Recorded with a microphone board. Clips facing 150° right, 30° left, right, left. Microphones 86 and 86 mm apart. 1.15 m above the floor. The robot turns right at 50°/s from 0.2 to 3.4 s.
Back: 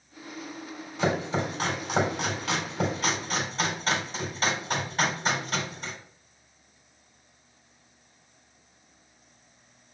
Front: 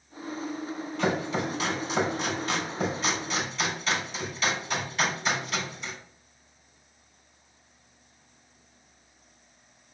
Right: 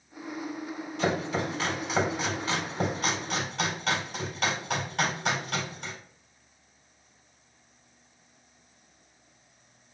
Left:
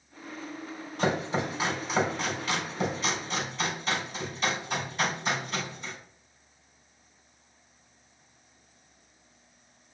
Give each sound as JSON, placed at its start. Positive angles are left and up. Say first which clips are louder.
{"t": 1.0, "sound": "chopping", "louder": "back 1 dB, left 1 dB", "azimuth_deg": 140, "distance_m": 4.0}